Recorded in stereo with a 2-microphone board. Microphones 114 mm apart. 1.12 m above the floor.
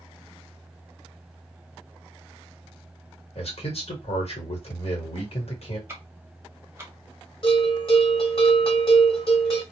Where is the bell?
50° left (ahead or behind), 1.5 m.